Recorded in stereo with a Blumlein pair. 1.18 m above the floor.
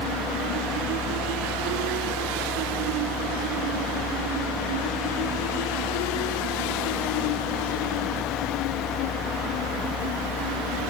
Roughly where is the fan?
Ahead.